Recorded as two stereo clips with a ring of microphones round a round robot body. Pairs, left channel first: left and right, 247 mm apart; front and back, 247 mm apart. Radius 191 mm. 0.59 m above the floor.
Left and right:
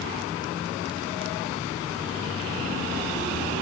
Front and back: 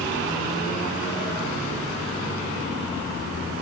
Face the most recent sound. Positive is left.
No sound to turn to.